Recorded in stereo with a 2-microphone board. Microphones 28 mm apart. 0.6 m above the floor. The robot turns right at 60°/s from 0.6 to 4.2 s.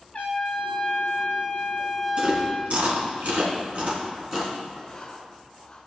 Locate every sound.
0.1 s a trumpet: 55° left, 1.5 m; by 2.8 s 175° right, 1.5 m
2.2 s chewing: 40° right (ahead or behind), 3 m; by 4.5 s 20° right (ahead or behind), 3 m
4.8 s writing: 25° left (ahead or behind), 2 m